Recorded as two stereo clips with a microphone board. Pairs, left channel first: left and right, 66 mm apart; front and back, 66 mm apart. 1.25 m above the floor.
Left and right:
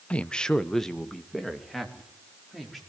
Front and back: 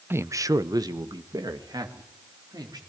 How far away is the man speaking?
About 0.6 m.